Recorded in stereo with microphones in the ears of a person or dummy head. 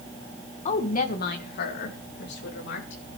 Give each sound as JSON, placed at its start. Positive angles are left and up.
{"t": 0.7, "sound": "a woman speaking", "side_deg": 35, "distance_m": 1.8}